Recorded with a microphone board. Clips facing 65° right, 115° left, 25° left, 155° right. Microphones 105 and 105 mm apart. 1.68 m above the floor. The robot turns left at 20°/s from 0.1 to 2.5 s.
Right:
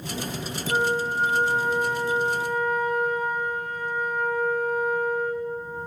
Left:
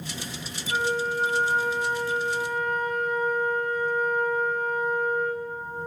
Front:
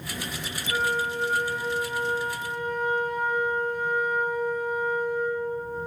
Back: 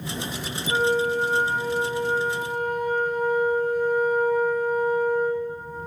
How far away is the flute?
About 2.5 m.